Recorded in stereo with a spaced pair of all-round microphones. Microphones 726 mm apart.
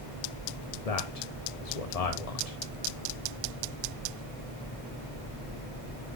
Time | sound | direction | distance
0.8 | a man speaking | 55° left (ahead or behind) | 1.0 m